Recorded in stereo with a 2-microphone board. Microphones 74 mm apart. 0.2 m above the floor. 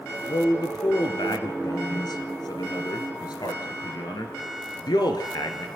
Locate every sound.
0.3 s a man speaking: 65° left (ahead or behind), 2.5 m